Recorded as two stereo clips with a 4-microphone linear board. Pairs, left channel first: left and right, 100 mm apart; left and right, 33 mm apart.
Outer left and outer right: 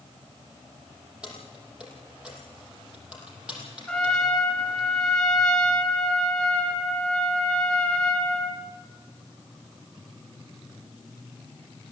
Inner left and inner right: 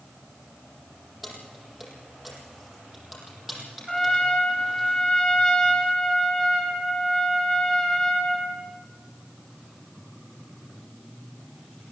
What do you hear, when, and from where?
1.2 s keys jangling: 10° right (ahead or behind), 7 m
3.9 s a trumpet: 10° left (ahead or behind), 4 m